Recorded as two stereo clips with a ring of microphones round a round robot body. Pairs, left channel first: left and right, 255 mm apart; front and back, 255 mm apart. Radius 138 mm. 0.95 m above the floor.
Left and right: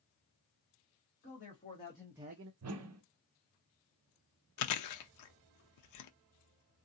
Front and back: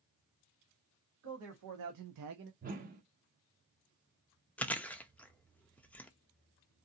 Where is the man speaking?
150° left, 1.7 m; by 2.5 s 115° right, 0.5 m.